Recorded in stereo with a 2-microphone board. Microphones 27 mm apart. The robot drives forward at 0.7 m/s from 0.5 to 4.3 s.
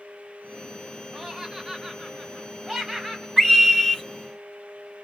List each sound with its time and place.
1.1 s laughter: 10° right (ahead or behind), 1.6 m
3.4 s a scream: centre (ahead or behind), 2.0 m